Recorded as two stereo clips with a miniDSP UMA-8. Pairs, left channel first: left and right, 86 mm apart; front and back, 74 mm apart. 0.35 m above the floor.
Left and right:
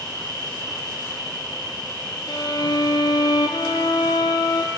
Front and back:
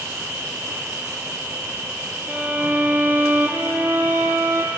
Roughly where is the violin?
Behind left.